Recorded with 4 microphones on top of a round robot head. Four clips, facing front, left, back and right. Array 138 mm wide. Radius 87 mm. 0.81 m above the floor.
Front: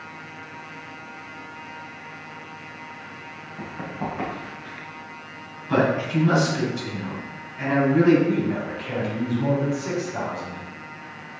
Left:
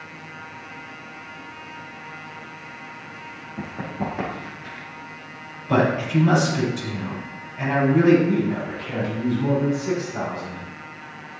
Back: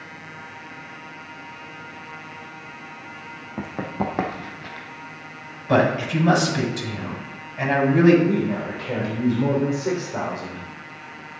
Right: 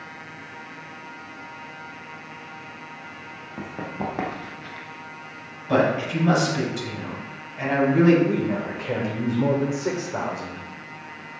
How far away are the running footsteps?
About 3 m.